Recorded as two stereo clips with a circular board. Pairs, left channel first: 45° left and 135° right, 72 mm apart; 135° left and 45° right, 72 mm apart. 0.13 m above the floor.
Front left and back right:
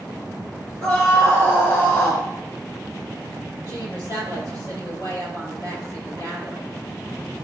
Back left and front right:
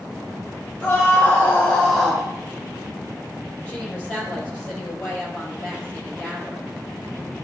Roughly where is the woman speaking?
Ahead left.